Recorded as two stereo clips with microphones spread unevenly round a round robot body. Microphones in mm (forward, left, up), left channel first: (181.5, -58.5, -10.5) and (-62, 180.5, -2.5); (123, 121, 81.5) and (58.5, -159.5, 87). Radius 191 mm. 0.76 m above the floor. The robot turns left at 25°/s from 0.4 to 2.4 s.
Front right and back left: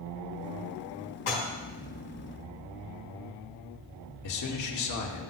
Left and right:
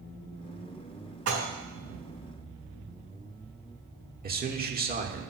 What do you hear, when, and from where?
1.3 s dishes clattering: 70° right, 4 m; by 1.5 s 75° right, 4 m
4.2 s a man speaking: 50° right, 1.5 m